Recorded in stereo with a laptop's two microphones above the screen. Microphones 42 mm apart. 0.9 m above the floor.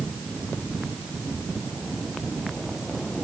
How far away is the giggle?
I don't hear a giggle.